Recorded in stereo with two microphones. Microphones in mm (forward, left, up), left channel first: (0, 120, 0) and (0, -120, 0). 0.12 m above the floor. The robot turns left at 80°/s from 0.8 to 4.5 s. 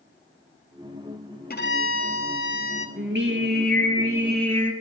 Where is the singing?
70° right, 2 m; by 4.7 s 170° left, 2 m.